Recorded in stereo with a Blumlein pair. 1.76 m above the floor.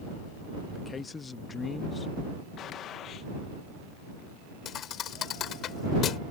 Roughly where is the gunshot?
Ahead left.